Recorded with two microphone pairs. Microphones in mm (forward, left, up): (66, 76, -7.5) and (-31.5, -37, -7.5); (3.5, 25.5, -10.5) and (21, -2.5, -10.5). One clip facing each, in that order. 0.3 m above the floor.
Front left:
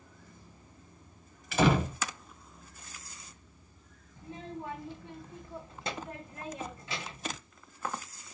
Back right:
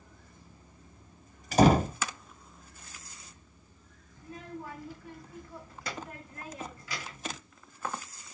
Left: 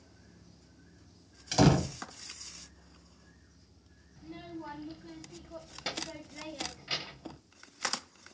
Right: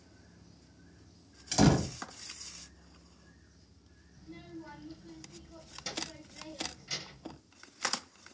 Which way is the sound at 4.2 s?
100° left.